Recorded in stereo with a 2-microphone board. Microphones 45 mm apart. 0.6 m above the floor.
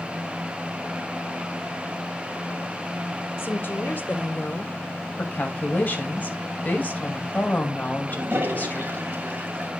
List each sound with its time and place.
3.4 s a woman speaking: 55° left (ahead or behind), 2.5 m; by 5.1 s 30° left (ahead or behind), 1.6 m
5.2 s a woman speaking: 40° left (ahead or behind), 2.5 m
8.1 s a toilet flushing: 60° right (ahead or behind), 2.5 m